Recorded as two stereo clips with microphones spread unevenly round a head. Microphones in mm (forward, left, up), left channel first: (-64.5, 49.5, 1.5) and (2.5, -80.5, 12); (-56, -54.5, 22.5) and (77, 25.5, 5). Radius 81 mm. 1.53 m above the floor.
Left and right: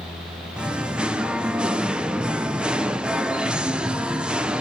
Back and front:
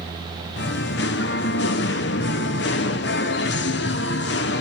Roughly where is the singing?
Behind right.